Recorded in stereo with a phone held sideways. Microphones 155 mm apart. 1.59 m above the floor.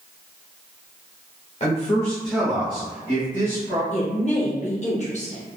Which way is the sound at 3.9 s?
45° left (ahead or behind).